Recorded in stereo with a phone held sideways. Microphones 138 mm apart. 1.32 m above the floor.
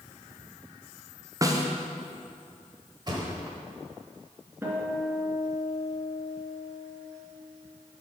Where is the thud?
30° right (ahead or behind), 1.3 m.